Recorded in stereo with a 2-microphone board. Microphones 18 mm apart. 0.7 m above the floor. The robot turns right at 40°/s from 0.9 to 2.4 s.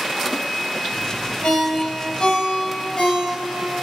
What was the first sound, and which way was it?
A ringtone, 85° left.